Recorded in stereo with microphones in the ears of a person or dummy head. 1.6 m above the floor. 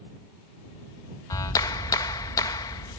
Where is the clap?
20° left (ahead or behind).